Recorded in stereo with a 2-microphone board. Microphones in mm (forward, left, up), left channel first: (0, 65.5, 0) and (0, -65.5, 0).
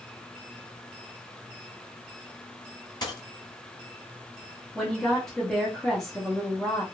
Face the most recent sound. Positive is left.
turn(degrees=5)  # may be behind; listen again after turning